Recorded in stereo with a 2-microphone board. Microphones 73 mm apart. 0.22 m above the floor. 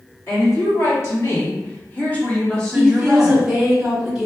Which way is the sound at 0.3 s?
45° left (ahead or behind).